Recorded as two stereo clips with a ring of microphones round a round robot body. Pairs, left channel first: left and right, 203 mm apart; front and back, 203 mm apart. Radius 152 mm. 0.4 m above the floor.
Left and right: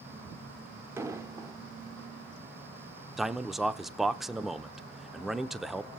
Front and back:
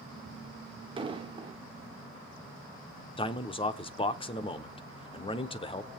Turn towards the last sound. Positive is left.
turn(degrees=0)